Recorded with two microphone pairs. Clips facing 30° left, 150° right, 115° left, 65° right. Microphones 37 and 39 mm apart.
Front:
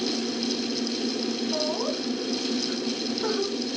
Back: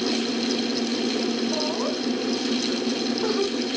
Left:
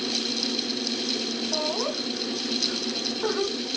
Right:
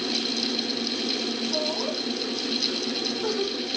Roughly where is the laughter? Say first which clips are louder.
Back 2 dB, even; behind.